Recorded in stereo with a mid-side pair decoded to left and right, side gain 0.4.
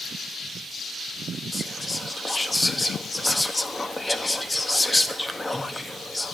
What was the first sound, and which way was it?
Whispering, 15° left.